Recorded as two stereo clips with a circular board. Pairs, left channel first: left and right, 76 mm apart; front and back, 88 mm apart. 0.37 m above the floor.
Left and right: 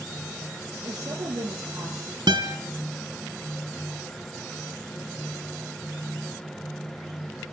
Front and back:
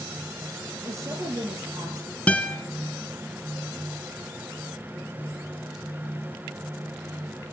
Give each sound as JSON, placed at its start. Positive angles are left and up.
{"t": 0.8, "sound": "a woman speaking", "azimuth_deg": -125, "distance_m": 8.0}
{"t": 2.3, "sound": "a guitar", "azimuth_deg": -75, "distance_m": 2.5}